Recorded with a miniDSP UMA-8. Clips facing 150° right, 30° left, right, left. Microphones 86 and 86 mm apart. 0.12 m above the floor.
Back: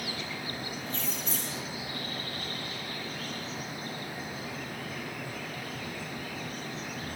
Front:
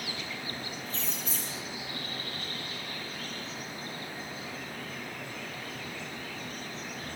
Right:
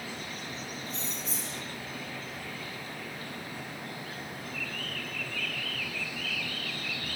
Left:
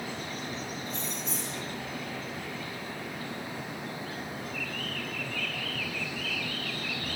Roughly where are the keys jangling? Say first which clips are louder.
Back 2 dB, left 3 dB; behind.